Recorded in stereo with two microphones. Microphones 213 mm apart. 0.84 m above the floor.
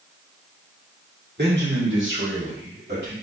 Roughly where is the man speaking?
Right.